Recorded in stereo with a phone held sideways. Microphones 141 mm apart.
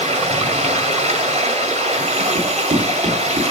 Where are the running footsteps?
60° right (ahead or behind), 5.5 m.